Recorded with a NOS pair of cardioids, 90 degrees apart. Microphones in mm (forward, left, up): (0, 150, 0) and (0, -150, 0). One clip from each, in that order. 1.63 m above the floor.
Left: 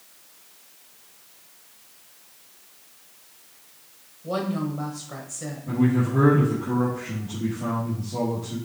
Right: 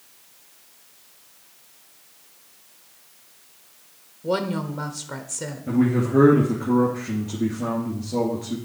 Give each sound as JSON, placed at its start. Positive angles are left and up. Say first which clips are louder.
{"t": 4.2, "sound": "a woman speaking", "louder": "right 3 dB", "azimuth_deg": -65, "distance_m": 1.1}
{"t": 5.7, "sound": "a man speaking", "louder": "right 2 dB", "azimuth_deg": -60, "distance_m": 2.5}